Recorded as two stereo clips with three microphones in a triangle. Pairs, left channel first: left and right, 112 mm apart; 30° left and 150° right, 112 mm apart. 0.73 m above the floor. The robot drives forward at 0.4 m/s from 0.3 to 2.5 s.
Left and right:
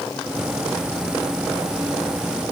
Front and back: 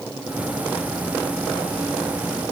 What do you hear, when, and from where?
Only background noise.